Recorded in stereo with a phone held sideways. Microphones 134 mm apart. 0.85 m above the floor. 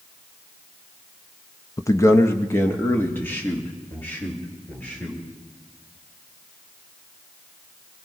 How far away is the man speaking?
About 0.6 m.